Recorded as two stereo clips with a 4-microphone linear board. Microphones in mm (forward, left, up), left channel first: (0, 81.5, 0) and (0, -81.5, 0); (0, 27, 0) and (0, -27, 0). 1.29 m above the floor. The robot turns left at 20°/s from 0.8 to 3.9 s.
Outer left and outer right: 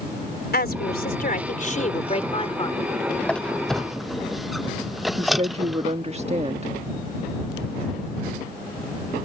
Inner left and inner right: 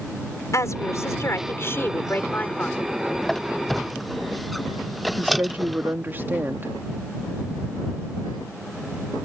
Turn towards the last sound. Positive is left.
turn(degrees=-40)  # may be behind; listen again after turning